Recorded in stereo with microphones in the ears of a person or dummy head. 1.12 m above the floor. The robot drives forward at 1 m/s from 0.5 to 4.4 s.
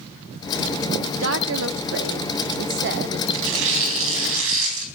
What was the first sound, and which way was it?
A woman speaking, 75° right (ahead or behind).